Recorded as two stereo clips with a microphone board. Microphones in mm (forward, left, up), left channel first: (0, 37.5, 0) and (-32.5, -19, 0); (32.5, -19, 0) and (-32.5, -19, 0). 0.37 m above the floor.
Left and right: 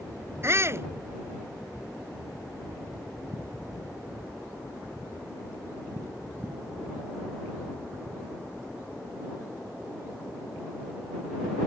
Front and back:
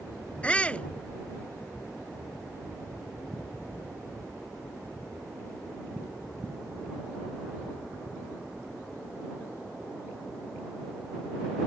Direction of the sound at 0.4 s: 70° right.